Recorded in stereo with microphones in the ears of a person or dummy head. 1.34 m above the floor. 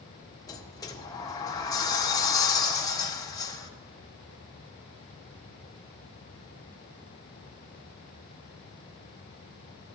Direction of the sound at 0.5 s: 20° left (ahead or behind).